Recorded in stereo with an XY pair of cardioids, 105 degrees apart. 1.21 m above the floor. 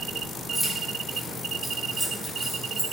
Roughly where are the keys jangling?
Ahead.